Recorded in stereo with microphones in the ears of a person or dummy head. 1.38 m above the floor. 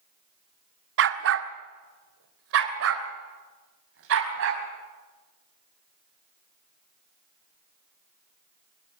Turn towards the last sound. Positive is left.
turn(degrees=-75)  # may be behind; listen again after turning